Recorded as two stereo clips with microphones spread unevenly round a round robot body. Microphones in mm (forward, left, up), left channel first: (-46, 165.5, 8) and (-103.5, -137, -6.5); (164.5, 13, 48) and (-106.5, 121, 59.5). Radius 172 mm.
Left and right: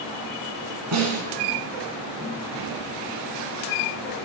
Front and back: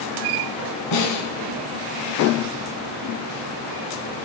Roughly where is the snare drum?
Ahead right.